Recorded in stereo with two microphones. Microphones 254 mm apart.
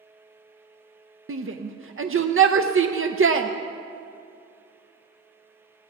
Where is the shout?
50° right (ahead or behind), 0.5 m.